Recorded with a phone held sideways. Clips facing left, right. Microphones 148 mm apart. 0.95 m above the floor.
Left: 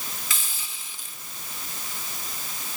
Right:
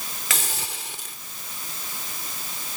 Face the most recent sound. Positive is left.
turn(degrees=-75)  # may be behind; listen again after turning